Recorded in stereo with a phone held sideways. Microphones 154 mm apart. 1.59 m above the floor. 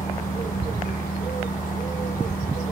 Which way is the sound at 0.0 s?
60° left (ahead or behind).